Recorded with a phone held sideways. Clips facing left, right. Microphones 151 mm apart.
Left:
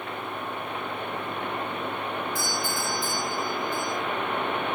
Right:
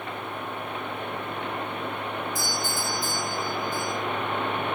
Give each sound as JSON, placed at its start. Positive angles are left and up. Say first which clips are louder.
{"t": 2.4, "sound": "a doorbell", "louder": "even", "side_deg": -45, "distance_m": 4.0}